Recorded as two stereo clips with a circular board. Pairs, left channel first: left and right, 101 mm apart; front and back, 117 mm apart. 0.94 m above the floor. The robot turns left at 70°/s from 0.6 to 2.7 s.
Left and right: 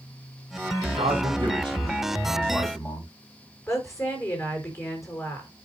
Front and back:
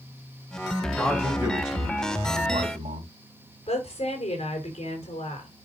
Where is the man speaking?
80° right, 3.5 m; by 3.1 s 160° left, 3.5 m.